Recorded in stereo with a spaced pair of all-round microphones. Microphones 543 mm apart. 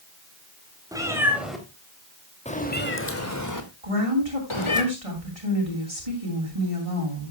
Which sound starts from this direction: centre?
A cat meowing, at 0.9 s.